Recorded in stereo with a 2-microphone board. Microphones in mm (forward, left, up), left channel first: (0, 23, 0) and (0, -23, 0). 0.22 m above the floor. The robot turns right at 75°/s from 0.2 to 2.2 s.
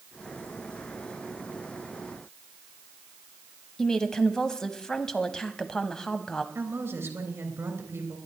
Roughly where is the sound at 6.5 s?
Right.